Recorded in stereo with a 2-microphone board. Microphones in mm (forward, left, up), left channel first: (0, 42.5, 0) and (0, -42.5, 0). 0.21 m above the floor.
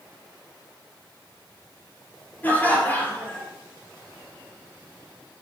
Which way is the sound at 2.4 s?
25° left (ahead or behind).